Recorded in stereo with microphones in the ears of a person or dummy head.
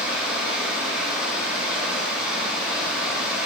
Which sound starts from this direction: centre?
Running water, at 0.0 s.